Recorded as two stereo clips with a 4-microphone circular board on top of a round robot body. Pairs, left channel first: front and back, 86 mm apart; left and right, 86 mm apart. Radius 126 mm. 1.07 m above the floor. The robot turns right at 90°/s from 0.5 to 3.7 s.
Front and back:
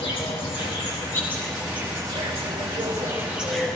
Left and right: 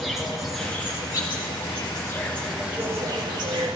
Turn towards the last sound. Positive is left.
turn(degrees=-75)